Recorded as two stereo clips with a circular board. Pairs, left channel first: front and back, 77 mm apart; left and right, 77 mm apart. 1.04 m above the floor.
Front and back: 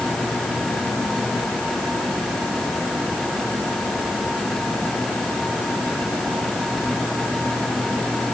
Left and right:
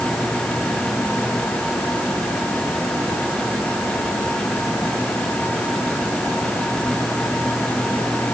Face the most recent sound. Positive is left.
No sound to turn to.